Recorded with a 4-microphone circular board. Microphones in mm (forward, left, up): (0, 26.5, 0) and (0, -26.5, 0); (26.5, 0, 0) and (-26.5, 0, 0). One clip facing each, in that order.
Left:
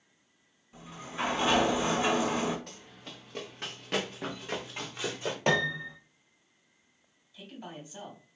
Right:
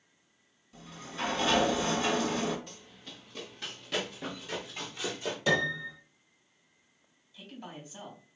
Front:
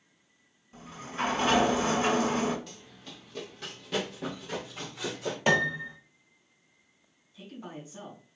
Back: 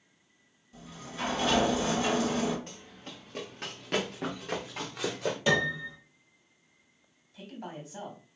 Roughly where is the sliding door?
Ahead left.